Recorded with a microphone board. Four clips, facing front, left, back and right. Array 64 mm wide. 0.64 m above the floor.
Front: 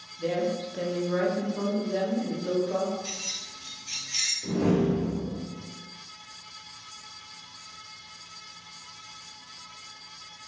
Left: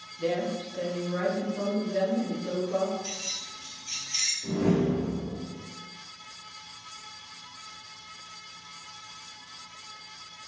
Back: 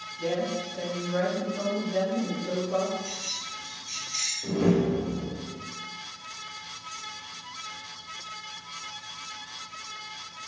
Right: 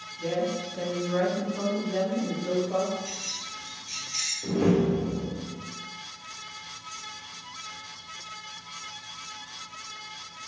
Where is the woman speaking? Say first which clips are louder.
Even, front 1 dB; 110° left, 0.8 m; by 2.9 s 30° right, 2.5 m.